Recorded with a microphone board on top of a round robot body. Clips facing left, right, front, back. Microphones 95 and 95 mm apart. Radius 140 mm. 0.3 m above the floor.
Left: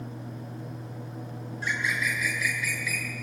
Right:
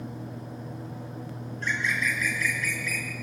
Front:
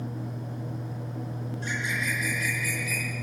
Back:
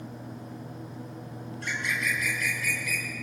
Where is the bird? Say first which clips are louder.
Right 1 dB, back 1 dB; 170° left, 3.5 m.